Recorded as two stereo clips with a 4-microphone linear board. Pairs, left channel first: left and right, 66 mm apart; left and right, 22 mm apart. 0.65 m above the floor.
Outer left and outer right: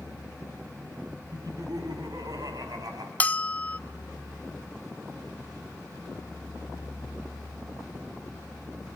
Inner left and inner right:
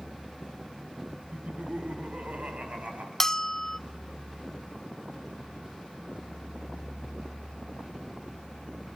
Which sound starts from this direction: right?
Laughter, at 1.3 s.